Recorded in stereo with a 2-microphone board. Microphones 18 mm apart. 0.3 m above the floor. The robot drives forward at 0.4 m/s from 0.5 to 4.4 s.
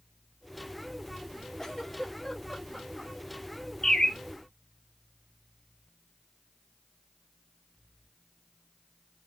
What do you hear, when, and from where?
1.6 s a giggle: 15° left (ahead or behind), 1.5 m; by 3.1 s 10° left (ahead or behind), 1.8 m
3.8 s a bird: 35° left (ahead or behind), 1.5 m